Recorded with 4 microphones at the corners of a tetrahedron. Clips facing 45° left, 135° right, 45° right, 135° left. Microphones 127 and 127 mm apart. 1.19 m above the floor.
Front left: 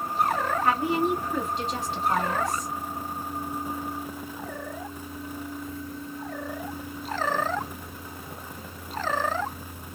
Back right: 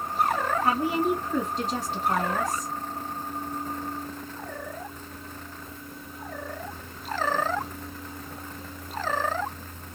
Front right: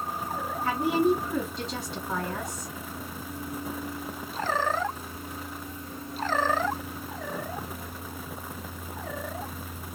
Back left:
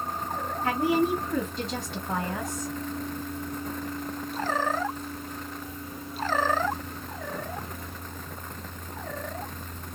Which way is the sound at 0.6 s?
170° left.